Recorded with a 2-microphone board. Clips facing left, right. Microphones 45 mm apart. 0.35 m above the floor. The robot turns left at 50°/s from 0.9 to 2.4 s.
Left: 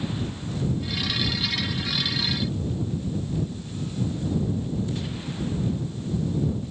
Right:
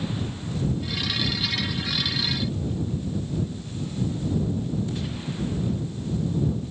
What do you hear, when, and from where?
Only background noise.